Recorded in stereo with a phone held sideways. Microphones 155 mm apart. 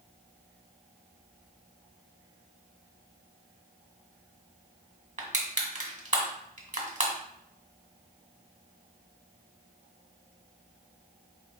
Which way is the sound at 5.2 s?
55° right (ahead or behind).